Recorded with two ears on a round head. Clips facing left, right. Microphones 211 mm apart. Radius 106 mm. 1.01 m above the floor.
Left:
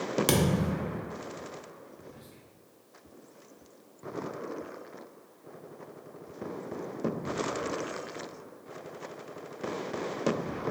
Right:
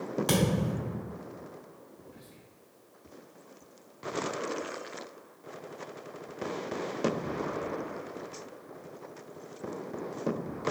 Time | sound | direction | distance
0.3 | a thud | 35° left (ahead or behind) | 0.7 m
2.0 | whispering | 10° left (ahead or behind) | 0.7 m